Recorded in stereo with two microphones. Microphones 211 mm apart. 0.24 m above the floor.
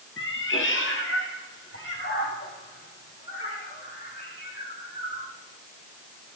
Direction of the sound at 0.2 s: 70° left (ahead or behind).